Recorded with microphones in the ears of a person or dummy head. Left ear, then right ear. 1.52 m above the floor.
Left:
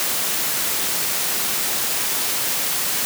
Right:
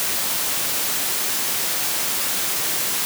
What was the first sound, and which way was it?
Only background noise.